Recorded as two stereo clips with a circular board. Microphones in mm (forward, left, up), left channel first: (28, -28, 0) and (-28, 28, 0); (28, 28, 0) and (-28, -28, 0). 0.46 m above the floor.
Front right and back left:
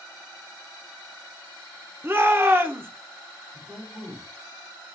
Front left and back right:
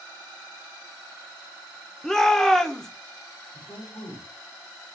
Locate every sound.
2.0 s a shout: 120° left, 0.8 m
3.5 s a man speaking: 60° left, 3.5 m